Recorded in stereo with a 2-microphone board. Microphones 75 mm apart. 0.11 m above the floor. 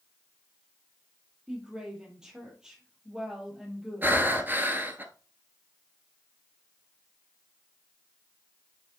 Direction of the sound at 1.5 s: 10° right (ahead or behind).